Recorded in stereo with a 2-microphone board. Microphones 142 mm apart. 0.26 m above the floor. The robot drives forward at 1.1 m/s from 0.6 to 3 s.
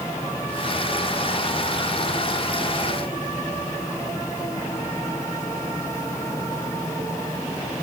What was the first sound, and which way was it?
Only background noise.